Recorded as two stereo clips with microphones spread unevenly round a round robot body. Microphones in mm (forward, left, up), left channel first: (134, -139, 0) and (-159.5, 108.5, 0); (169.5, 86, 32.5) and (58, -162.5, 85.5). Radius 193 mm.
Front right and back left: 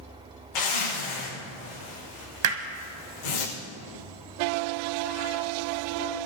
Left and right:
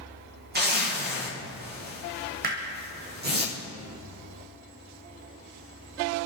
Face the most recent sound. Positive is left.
turn(degrees=180)